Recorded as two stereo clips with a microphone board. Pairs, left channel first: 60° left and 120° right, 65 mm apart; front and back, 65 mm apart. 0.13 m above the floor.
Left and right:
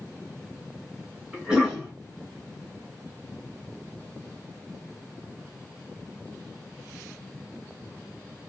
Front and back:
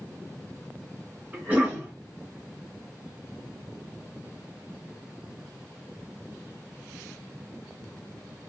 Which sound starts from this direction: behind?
A cough, at 1.3 s.